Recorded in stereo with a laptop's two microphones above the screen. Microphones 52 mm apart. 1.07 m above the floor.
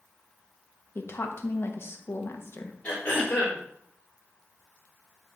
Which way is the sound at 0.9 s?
55° left (ahead or behind).